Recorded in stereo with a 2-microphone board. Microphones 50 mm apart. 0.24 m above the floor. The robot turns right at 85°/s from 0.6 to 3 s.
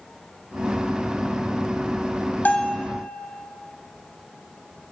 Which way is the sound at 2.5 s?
125° left.